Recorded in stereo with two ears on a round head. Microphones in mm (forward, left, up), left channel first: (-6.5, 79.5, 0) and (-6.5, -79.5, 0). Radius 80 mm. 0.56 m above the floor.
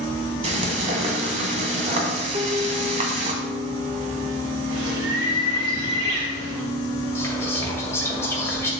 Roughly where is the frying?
Right.